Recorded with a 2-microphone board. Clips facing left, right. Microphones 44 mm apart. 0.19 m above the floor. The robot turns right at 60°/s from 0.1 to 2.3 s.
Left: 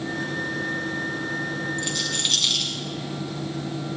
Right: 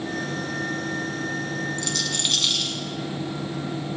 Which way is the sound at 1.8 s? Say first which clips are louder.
Even; 20° left (ahead or behind).